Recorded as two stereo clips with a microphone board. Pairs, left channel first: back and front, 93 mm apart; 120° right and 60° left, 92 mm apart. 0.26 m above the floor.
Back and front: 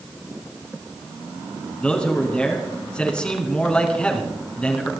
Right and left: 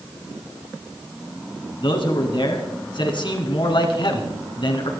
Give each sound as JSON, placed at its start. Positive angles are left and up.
{"t": 1.8, "sound": "a man speaking", "azimuth_deg": -100, "distance_m": 3.0}